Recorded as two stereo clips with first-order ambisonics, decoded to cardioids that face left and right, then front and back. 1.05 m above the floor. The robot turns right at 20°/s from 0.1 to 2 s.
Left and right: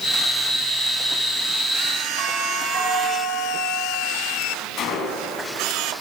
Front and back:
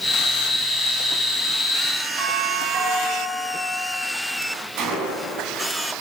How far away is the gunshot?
About 5.5 m.